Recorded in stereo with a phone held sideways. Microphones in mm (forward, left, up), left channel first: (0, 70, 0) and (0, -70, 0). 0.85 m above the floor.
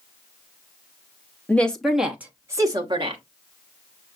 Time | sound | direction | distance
1.5 | a woman speaking | 10° left (ahead or behind) | 1.1 m